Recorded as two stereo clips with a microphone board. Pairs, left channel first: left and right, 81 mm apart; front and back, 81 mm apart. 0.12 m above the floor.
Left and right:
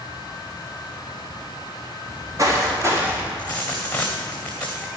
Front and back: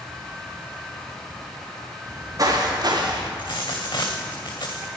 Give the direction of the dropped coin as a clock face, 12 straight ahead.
11 o'clock.